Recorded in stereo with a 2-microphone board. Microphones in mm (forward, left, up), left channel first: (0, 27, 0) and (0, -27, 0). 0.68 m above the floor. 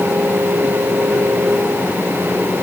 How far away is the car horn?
No car horn in this recording.